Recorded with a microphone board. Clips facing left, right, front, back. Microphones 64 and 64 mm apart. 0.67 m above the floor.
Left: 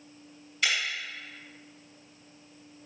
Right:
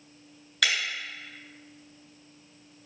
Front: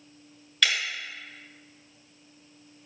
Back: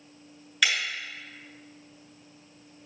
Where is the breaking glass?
100° right, 3.5 m.